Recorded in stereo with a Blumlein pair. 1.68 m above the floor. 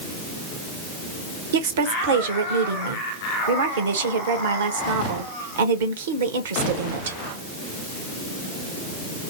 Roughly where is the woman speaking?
Ahead right.